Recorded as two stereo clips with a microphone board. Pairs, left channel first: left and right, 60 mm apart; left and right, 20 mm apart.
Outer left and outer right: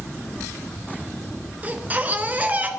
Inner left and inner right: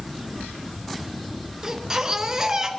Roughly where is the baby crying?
Right.